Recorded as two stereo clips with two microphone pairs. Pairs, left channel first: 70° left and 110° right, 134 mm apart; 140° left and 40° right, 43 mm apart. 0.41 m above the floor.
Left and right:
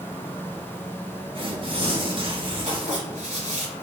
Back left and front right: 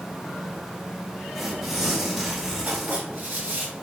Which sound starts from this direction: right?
Writing, at 2.7 s.